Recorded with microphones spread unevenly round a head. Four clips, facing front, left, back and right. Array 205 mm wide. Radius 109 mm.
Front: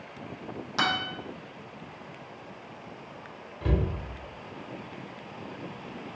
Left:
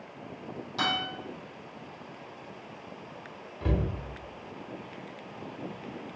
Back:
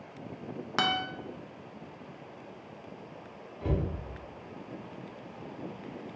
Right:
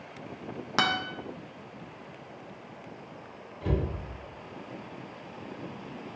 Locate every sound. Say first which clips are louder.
0.8 s a guitar: right 3 dB, front 1 dB; 95° right, 0.5 m
3.6 s a cupboard door: even, front 2 dB; 65° left, 1.8 m